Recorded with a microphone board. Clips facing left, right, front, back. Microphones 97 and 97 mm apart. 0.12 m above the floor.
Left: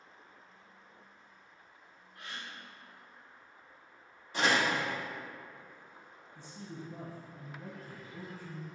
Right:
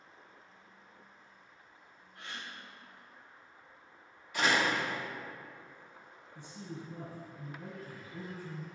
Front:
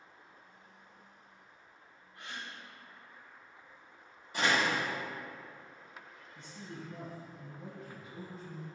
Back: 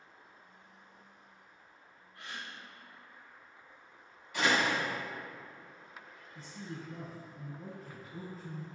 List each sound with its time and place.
2.1 s a gasp: 45° right, 1.0 m
4.3 s a door slam: 40° left, 1.2 m
6.3 s a man speaking: 150° right, 1.4 m